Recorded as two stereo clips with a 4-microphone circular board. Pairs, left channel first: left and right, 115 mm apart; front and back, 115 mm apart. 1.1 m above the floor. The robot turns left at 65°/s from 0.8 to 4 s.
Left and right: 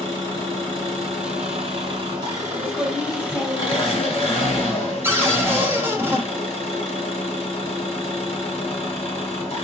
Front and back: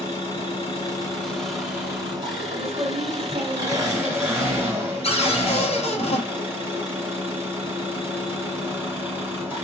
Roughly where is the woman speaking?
Behind right.